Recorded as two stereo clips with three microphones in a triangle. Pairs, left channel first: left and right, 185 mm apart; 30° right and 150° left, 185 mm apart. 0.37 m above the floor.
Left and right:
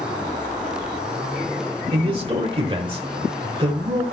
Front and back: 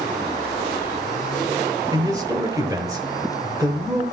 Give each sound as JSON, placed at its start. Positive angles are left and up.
{"t": 1.9, "sound": "a man speaking", "azimuth_deg": -145, "distance_m": 1.3}